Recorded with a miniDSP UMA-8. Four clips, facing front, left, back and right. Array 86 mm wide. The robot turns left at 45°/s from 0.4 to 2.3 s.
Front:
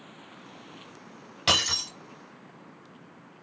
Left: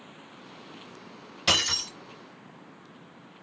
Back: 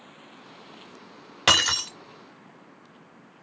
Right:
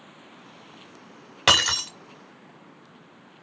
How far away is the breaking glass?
About 0.9 m.